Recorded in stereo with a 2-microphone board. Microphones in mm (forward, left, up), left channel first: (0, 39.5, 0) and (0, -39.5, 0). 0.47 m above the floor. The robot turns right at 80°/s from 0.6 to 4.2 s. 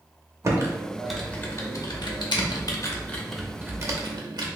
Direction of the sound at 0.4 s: 35° right (ahead or behind).